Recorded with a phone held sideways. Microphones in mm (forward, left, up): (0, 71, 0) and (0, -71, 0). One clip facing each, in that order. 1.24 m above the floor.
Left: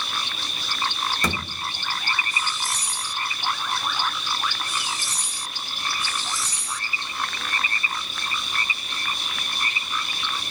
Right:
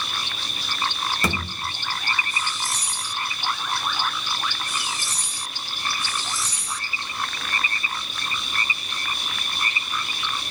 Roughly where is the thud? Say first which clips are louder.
Right 2 dB; centre.